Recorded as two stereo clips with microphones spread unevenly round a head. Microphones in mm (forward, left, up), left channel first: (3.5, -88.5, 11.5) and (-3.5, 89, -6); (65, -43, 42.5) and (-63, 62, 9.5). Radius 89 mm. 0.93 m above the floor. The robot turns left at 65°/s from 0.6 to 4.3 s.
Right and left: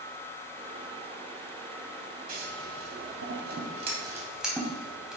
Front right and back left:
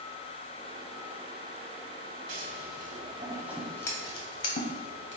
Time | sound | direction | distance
2.3 | scissors | 135° left | 2.5 m